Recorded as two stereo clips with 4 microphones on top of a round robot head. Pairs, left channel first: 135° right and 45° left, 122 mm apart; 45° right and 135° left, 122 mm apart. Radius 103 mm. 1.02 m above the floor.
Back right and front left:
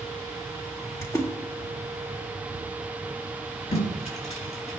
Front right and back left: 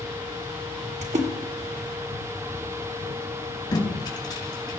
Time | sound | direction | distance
1.0 | a splash | 160° left | 1.9 m
3.7 | tape being pulled | 105° right | 5 m